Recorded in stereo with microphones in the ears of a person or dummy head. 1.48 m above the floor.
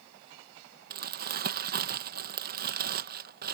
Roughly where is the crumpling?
Right.